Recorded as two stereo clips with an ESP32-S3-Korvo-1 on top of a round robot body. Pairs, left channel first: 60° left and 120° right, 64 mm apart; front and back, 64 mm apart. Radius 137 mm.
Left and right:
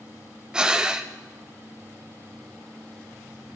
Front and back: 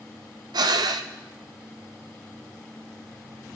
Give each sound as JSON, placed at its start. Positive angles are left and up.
{"t": 0.5, "sound": "breathing", "azimuth_deg": 160, "distance_m": 0.7}